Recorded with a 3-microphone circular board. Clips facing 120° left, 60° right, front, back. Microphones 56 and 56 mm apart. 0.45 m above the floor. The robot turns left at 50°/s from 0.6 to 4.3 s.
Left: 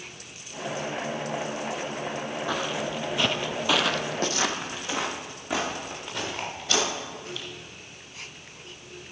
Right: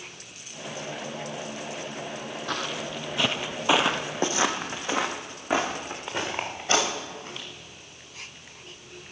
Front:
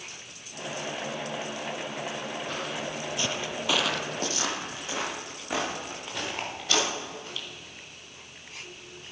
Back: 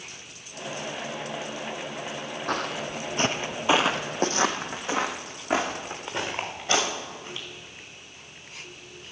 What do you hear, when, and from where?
2.5 s footsteps: 160° right, 1.1 m; by 7.5 s 110° right, 4.5 m